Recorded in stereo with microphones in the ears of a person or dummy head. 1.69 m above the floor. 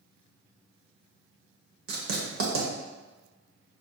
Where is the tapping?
No tapping in this recording.